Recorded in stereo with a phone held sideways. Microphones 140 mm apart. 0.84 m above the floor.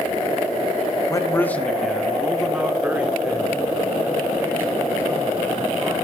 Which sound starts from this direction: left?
A man speaking, at 1.1 s.